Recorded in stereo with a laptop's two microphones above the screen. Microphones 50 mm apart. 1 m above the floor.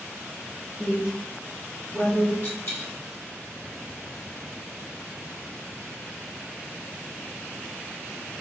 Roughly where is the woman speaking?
Left.